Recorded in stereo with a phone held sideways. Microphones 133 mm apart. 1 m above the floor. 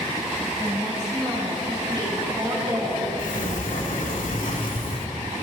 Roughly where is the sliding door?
Left.